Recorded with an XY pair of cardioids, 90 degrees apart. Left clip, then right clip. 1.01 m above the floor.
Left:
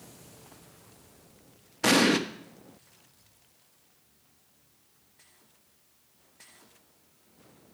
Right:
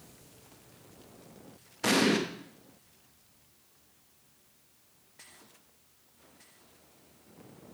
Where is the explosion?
40° left, 0.9 m.